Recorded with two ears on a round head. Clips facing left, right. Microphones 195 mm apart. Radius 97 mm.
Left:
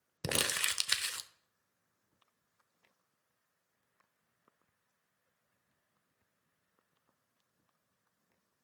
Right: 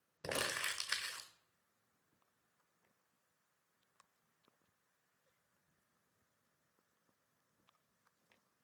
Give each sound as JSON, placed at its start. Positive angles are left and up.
{"t": 0.2, "sound": "crumpling", "side_deg": 50, "distance_m": 0.7}